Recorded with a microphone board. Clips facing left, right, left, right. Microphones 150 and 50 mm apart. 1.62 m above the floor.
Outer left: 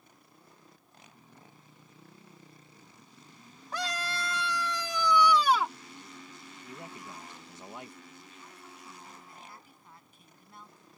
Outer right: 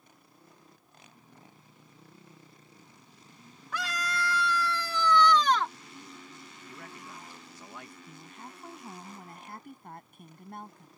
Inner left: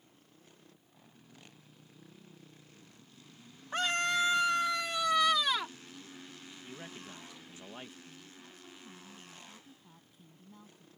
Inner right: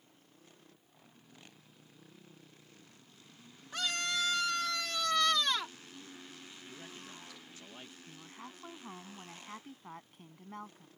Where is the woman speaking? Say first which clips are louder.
Outer right 4 dB, inner right 3 dB; 60° right (ahead or behind).